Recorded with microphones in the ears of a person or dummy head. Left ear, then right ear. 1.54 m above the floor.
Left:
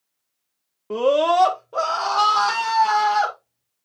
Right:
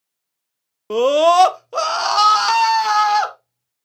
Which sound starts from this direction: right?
A scream, at 0.9 s.